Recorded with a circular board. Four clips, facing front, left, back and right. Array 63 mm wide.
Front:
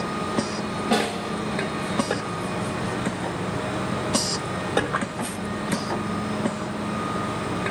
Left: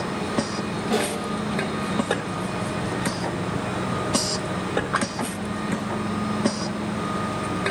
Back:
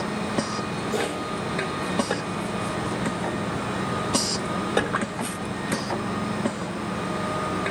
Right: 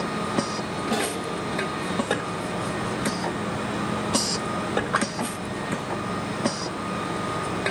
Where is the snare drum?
Straight ahead, 6 m.